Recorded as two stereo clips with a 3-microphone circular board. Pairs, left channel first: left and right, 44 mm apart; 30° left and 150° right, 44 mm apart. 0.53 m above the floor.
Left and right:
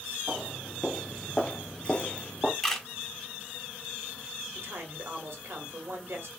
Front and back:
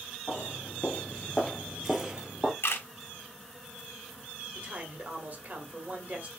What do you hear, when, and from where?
0.3 s footsteps: 5° right, 0.9 m; by 2.5 s 150° left, 0.8 m
2.6 s a camera shutter: 5° left, 1.1 m
4.5 s a man speaking: 100° right, 1.6 m